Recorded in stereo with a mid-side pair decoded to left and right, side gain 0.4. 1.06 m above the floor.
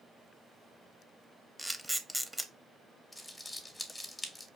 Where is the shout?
No shout in this recording.